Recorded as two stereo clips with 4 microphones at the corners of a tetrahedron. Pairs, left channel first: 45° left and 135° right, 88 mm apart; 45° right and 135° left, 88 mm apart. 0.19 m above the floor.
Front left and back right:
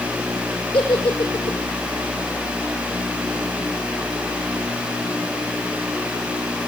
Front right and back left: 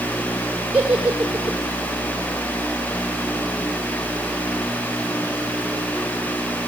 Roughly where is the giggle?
Ahead left.